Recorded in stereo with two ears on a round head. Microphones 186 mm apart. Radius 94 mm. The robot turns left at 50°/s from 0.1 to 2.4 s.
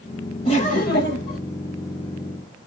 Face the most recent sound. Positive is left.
turn(degrees=55)